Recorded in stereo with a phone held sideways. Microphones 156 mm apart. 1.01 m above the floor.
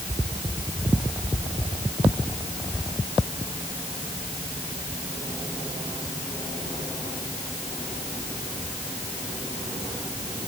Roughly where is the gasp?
I don't hear a gasp.